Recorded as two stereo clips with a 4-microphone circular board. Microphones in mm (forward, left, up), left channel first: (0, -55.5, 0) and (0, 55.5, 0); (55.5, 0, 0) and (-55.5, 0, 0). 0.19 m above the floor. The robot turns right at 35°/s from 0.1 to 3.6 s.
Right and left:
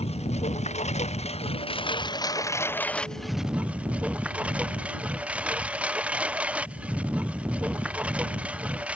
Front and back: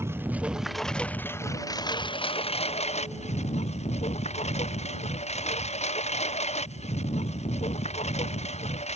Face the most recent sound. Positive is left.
turn(degrees=10)